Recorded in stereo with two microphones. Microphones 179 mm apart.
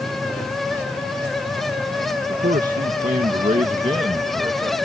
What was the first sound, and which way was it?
A man speaking, 60° right (ahead or behind).